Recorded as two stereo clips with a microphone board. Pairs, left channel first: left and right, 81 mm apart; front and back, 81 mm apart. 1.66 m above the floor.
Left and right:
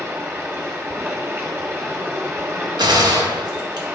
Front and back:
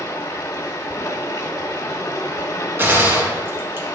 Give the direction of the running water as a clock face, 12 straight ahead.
1 o'clock.